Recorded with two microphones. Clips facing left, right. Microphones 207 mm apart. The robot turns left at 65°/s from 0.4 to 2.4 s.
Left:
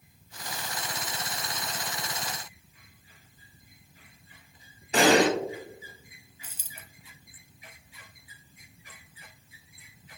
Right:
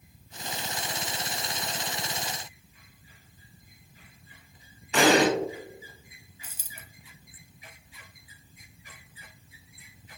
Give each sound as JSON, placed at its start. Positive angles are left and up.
{"t": 4.9, "sound": "an explosion", "side_deg": 35, "distance_m": 0.9}
{"t": 6.4, "sound": "a dropped coin", "side_deg": -10, "distance_m": 0.5}